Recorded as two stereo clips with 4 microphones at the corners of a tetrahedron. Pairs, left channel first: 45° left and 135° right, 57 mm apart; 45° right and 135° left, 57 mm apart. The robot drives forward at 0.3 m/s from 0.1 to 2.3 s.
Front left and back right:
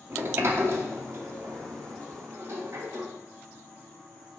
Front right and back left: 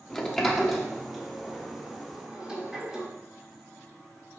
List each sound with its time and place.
0.1 s a sliding door: 120° right, 1.0 m; by 3.1 s 150° right, 1.4 m